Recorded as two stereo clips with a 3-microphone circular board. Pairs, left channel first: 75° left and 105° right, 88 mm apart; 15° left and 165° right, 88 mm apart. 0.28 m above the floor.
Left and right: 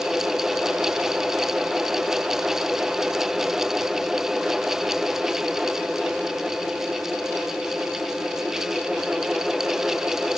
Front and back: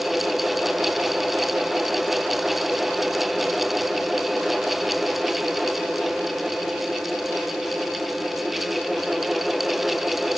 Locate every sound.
Only background noise.